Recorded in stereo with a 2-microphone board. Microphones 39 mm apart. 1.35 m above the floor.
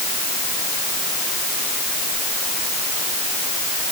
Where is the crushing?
I don't hear crushing.